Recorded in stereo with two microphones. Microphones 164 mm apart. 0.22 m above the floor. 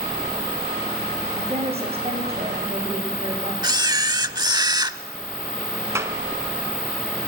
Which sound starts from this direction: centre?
A clap, at 6.0 s.